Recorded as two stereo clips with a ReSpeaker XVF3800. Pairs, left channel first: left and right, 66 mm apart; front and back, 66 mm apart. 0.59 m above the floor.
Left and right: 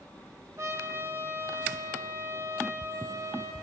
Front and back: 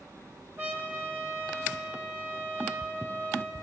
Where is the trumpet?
130° right, 2 m.